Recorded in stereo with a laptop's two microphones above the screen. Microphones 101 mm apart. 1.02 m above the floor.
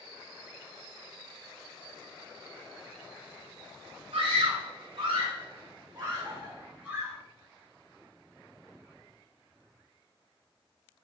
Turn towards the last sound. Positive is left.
turn(degrees=-5)  # may be behind; listen again after turning